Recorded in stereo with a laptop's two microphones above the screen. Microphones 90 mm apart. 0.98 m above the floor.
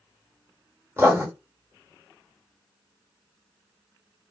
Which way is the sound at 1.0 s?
30° right (ahead or behind).